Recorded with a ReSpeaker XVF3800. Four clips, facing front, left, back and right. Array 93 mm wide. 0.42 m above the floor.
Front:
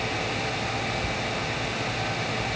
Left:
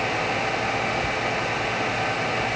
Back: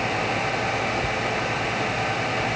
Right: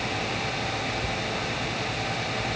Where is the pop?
No pop in this recording.